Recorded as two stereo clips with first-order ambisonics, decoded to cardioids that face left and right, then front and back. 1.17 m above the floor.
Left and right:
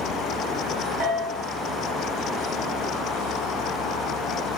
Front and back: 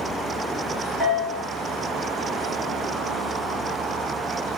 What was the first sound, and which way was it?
A bell, 85° right.